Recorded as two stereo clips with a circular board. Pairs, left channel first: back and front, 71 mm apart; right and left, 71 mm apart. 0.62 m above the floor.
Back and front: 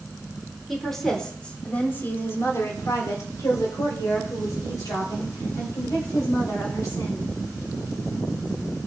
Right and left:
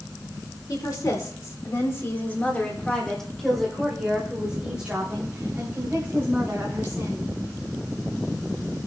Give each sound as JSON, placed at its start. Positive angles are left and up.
{"t": 0.7, "sound": "a woman speaking", "azimuth_deg": -90, "distance_m": 2.5}